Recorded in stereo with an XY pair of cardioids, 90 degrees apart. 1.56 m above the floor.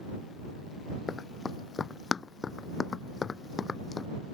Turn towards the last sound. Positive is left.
turn(degrees=45)